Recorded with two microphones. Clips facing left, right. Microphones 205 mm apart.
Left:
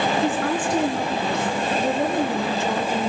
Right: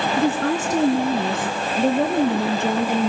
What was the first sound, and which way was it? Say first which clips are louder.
A woman speaking: right 2 dB; 40° right (ahead or behind).